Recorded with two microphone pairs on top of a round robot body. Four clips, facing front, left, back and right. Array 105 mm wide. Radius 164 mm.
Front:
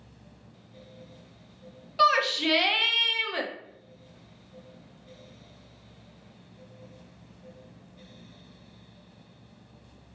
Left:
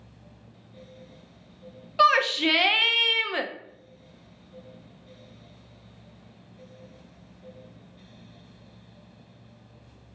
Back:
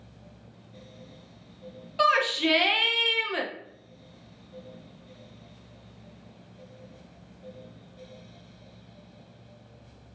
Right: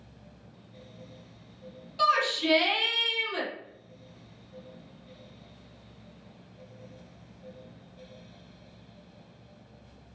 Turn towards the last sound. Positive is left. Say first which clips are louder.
# left 5 dB, even
turn(degrees=95)